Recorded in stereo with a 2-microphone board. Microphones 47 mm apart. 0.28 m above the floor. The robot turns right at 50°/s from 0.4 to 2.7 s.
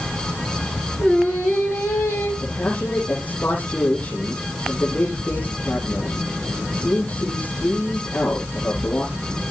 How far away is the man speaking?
About 8.5 m.